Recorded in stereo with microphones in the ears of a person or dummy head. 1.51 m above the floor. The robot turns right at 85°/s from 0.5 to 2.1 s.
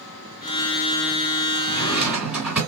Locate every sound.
1.7 s a drawer: 150° left, 2 m; by 2.6 s 175° right, 2 m